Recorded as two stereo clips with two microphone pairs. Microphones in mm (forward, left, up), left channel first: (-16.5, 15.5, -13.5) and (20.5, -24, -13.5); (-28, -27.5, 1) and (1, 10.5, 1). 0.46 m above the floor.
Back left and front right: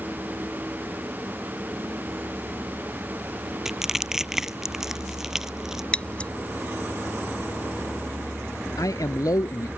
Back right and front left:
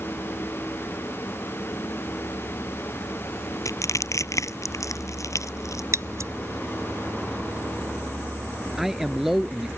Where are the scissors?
65° left.